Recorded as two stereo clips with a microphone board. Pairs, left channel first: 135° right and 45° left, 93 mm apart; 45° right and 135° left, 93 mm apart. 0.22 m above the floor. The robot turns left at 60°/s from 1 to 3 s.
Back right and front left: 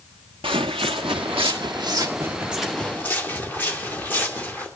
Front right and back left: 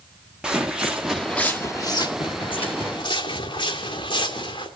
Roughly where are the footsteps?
Ahead left.